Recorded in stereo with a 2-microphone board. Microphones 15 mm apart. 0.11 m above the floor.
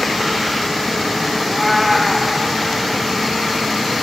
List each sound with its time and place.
1.4 s a cat meowing: 5° left (ahead or behind), 1.7 m